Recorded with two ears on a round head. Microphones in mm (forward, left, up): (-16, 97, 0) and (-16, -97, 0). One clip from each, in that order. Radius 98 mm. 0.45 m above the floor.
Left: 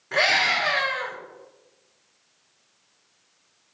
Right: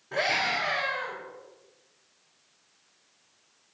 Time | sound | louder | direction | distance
0.1 | a scream | left 6 dB | 65° left (ahead or behind) | 7 m